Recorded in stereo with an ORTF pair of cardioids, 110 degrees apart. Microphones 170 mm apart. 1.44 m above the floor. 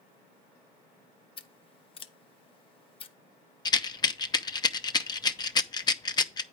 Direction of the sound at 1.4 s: 35° left.